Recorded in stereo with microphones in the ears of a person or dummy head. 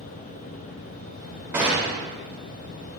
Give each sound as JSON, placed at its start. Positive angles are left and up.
{"t": 1.5, "sound": "a gunshot", "side_deg": -15, "distance_m": 3.5}